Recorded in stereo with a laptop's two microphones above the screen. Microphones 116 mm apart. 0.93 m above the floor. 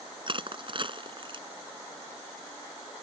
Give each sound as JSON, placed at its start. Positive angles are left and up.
{"t": 0.3, "sound": "crushing", "side_deg": -45}